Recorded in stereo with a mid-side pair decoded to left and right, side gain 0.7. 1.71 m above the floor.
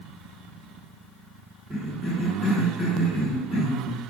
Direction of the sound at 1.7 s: 15° left.